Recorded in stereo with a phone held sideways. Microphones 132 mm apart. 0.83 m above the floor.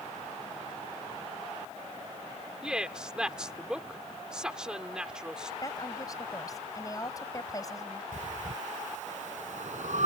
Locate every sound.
2.6 s a woman speaking: 5° right (ahead or behind)
5.6 s a woman speaking: 30° left (ahead or behind)
8.1 s breathing: 75° right (ahead or behind)